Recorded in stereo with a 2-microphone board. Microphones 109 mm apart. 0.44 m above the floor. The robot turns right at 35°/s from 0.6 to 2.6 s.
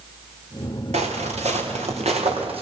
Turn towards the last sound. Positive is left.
turn(degrees=-60)  # may be behind; listen again after turning